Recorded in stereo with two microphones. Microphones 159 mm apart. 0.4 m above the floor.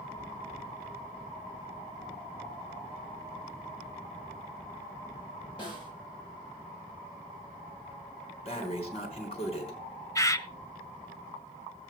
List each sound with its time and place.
5.6 s a snare drum: 30° left (ahead or behind), 8.5 m
8.4 s breathing: 40° left (ahead or behind), 3.5 m
10.2 s a bird: 20° left (ahead or behind), 0.8 m